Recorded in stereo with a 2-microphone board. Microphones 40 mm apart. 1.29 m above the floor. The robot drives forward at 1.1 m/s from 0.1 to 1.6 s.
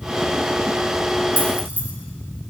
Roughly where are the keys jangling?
Right.